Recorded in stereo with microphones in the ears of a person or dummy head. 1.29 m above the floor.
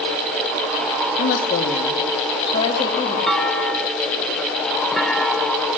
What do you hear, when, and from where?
1.2 s a woman speaking: 50° left (ahead or behind), 2 m; by 3.2 s 20° left (ahead or behind), 2.5 m
3.3 s a clunk: centre (ahead or behind), 1.2 m